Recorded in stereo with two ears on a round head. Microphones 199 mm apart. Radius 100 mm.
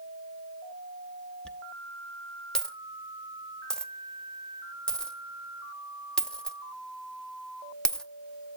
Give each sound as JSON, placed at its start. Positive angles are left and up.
{"t": 1.4, "sound": "a dropped coin", "side_deg": 5, "distance_m": 0.7}